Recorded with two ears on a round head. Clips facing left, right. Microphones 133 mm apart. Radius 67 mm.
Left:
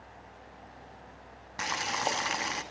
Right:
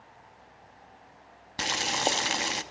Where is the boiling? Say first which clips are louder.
Right 3 dB; 35° right (ahead or behind), 0.8 m.